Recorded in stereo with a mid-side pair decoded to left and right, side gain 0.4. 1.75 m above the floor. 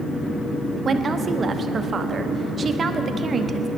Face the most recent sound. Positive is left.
turn(degrees=-45)